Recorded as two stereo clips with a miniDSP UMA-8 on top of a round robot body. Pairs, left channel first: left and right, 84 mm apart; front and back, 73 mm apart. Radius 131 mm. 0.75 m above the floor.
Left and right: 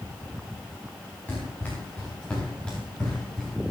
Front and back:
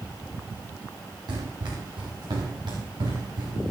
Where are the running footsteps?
160° left, 7.5 m; by 3.7 s 170° left, 6.5 m.